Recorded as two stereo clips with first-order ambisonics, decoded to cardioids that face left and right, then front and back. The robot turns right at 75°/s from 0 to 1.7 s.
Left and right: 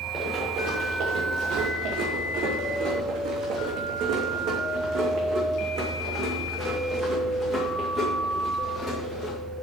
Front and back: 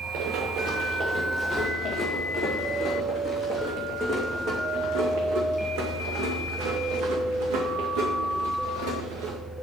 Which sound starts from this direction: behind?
Running footsteps, at 0.1 s.